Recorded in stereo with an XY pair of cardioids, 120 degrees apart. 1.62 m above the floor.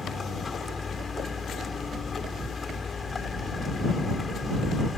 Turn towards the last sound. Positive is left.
turn(degrees=25)